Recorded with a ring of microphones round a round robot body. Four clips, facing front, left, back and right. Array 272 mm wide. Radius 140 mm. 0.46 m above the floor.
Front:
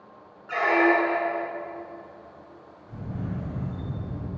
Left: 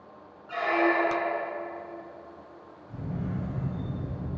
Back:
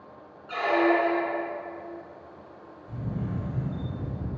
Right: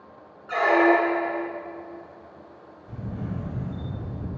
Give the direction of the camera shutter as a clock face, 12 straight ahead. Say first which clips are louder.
Right 1 dB, back 1 dB; 4 o'clock.